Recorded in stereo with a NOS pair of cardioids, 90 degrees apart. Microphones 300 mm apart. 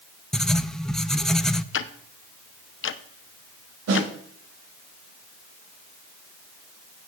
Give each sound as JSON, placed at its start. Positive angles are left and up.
{"t": 0.3, "sound": "writing", "azimuth_deg": 0, "distance_m": 0.5}
{"t": 1.7, "sound": "ticking", "azimuth_deg": 45, "distance_m": 0.8}
{"t": 3.9, "sound": "a snare drum", "azimuth_deg": -60, "distance_m": 6.0}